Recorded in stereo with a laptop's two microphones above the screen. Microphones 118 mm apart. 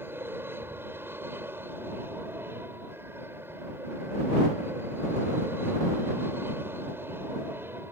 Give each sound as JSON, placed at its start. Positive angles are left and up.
{"t": 0.0, "sound": "an aircraft", "side_deg": -20}